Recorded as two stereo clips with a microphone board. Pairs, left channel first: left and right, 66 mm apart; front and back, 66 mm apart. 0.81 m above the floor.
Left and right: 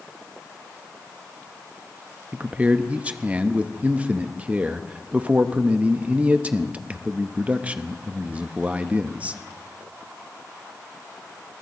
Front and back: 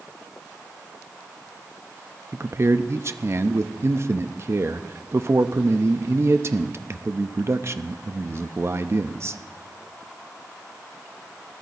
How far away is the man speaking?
About 0.6 m.